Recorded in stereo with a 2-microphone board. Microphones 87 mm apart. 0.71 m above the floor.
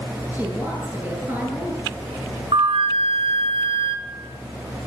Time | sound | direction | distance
0.3 | a woman speaking | 20° right (ahead or behind) | 9 m
2.5 | a flute | 85° right | 3 m